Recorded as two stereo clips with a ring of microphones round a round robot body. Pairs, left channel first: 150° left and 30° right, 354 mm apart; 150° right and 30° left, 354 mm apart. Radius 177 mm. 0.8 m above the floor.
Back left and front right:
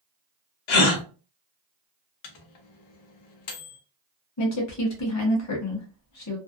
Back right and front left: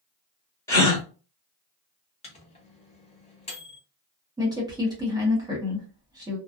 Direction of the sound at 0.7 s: 125° left.